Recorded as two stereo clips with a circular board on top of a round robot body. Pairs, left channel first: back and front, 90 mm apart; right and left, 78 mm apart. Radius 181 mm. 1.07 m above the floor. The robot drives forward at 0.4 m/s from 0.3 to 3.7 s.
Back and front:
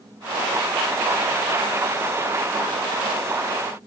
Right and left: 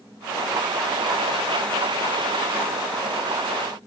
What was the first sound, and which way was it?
Only background noise.